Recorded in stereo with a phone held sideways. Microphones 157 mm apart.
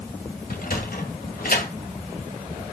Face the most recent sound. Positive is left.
turn(degrees=75)  # may be behind; listen again after turning